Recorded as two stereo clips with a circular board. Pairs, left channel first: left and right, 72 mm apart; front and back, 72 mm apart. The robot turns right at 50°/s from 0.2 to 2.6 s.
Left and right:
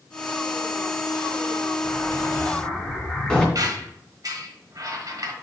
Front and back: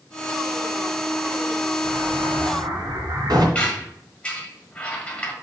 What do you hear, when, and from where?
1.8 s an explosion: 130° left, 2.5 m; by 3.5 s 170° left, 2.5 m
3.5 s a squeak: 70° right, 1.5 m